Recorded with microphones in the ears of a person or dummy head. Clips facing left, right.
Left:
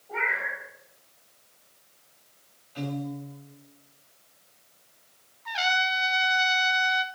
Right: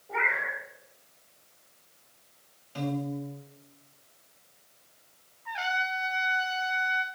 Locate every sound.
0.1 s a cat meowing: 30° right (ahead or behind), 3 m
2.8 s a piano: 50° right (ahead or behind), 3 m
5.5 s a trumpet: 45° left (ahead or behind), 0.8 m